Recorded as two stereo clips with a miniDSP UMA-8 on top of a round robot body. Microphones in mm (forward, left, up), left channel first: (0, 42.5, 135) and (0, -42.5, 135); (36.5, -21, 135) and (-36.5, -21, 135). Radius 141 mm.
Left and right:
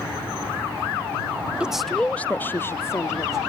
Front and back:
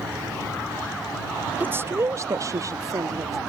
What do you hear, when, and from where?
1.6 s a woman speaking: 155° right; by 3.4 s 140° left